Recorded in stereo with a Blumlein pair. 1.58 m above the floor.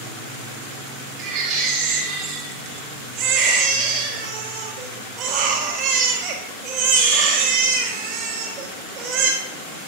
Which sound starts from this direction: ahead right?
A baby crying, at 1.2 s.